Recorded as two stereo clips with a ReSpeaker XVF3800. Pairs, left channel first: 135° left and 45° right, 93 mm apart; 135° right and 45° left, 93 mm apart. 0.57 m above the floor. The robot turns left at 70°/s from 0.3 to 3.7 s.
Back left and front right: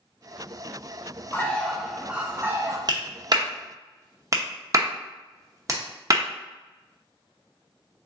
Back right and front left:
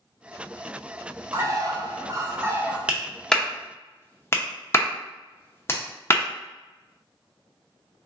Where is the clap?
25° right, 0.6 m; by 6.2 s 85° right, 0.6 m.